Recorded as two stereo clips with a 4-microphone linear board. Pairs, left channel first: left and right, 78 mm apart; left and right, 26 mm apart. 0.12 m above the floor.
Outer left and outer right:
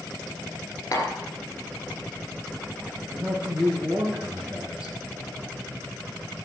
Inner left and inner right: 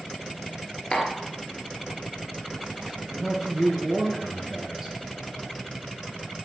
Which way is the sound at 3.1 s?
15° right (ahead or behind).